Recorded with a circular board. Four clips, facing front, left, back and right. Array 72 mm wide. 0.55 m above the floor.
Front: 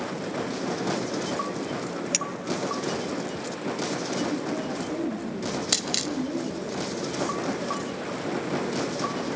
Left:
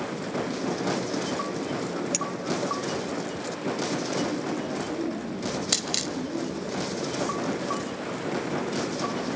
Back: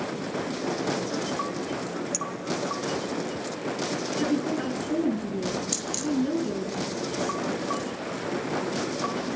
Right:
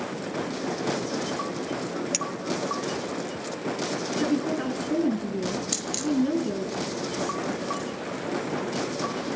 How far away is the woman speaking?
About 5.5 m.